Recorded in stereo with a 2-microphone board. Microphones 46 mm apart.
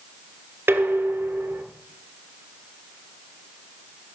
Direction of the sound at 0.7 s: 60° right (ahead or behind).